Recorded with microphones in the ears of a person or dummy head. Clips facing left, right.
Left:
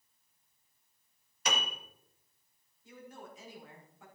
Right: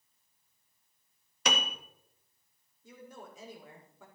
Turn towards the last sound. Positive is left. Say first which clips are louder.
# even
turn(degrees=-90)